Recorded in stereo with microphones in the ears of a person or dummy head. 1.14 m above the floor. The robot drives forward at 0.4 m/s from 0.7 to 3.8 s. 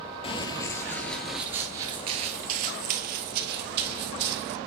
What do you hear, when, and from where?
0.2 s running footsteps: 30° left (ahead or behind), 1.4 m; by 4.6 s 60° right (ahead or behind), 2.5 m